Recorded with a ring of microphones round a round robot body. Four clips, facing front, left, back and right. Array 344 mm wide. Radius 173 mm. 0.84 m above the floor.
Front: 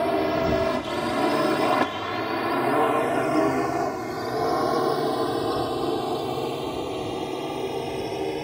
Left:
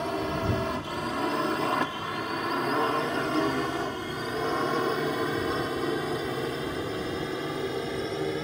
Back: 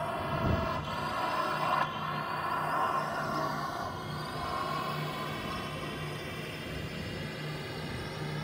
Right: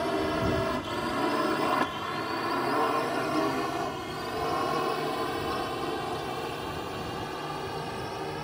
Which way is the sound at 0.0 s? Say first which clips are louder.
Right 2 dB, front 11 dB; 5° right.